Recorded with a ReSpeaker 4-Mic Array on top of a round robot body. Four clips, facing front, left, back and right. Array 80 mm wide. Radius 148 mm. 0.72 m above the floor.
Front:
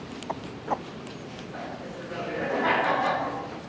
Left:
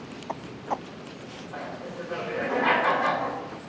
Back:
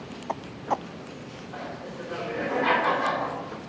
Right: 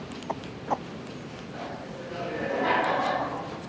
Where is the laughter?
120° left, 4 m.